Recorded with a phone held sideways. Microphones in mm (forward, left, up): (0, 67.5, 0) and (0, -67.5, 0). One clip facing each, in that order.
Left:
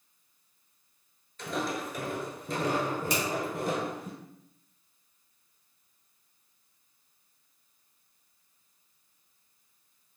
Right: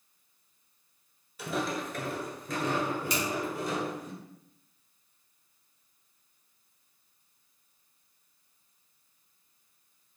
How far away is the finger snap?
About 2.0 m.